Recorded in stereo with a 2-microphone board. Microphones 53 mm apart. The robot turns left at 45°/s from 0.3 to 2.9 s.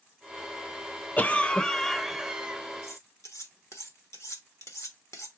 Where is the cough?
40° left, 0.7 m; by 2.6 s 30° right, 0.7 m.